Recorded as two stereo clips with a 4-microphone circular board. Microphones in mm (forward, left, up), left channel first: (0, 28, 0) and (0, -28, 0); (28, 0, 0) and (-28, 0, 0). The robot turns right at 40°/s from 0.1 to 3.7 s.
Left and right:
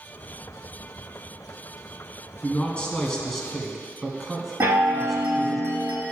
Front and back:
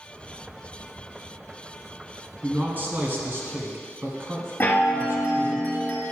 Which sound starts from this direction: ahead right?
A chime, at 4.6 s.